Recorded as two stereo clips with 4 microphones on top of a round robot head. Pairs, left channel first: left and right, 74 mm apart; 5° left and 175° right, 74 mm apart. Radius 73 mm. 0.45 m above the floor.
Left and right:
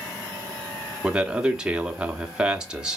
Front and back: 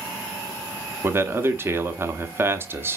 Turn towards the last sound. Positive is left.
turn(degrees=-160)